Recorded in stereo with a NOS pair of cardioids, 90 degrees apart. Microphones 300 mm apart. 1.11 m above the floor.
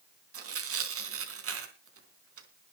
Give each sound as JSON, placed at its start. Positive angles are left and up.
{"t": 0.3, "sound": "tearing paper", "azimuth_deg": -50, "distance_m": 3.5}